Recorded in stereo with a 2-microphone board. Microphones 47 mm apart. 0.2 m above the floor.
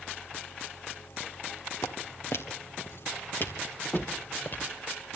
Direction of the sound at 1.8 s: 70° left (ahead or behind).